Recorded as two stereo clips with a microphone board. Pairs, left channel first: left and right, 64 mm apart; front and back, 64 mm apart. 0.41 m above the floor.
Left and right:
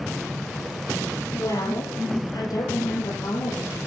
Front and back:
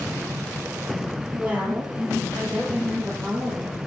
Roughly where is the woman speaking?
Left.